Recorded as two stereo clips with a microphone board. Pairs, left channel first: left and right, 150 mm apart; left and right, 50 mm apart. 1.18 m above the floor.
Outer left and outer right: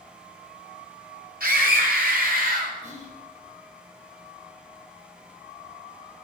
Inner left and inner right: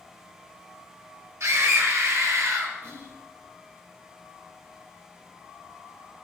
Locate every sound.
1.4 s a scream: 85° right, 5 m; by 2.7 s 75° right (ahead or behind), 6 m
2.8 s whispering: 55° right (ahead or behind), 4 m